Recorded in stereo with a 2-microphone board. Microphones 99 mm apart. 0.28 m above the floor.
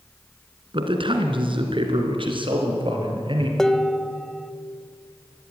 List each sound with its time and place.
0.7 s a man speaking: 55° right (ahead or behind), 3 m
3.6 s dishes clattering: 5° left (ahead or behind), 0.7 m